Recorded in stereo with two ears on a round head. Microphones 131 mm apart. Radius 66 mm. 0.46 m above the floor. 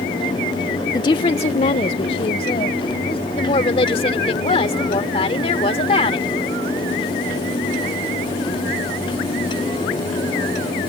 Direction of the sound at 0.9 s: 25° left (ahead or behind).